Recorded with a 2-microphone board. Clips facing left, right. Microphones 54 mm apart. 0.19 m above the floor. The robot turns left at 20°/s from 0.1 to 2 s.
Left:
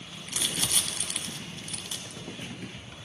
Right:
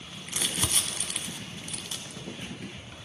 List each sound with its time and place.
0.3 s crumpling: 25° right (ahead or behind), 0.8 m; by 3.0 s 5° right (ahead or behind), 0.8 m